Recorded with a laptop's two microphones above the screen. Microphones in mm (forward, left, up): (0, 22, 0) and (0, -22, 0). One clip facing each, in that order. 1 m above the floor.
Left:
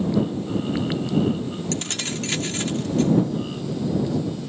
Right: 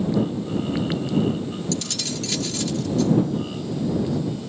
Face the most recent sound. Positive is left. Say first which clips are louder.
# even
turn(degrees=45)  # may be behind; listen again after turning